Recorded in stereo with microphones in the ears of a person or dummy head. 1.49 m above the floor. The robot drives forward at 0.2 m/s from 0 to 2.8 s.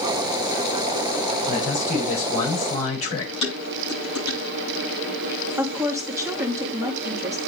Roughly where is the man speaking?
Left.